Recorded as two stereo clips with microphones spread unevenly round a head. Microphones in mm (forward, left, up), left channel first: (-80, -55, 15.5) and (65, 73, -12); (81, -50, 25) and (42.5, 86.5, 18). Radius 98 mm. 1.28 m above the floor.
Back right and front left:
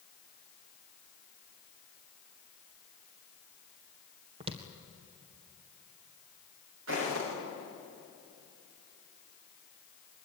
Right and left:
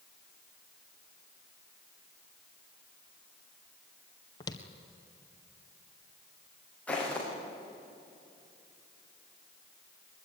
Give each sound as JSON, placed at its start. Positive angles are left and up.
{"t": 4.4, "sound": "footsteps", "azimuth_deg": -25, "distance_m": 1.8}
{"t": 6.9, "sound": "footsteps", "azimuth_deg": 5, "distance_m": 8.0}